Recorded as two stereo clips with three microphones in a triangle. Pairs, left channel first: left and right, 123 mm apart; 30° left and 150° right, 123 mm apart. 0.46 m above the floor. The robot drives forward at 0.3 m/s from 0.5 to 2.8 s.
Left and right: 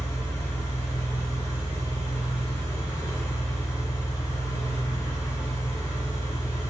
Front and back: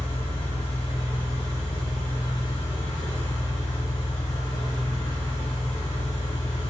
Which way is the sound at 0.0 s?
30° left.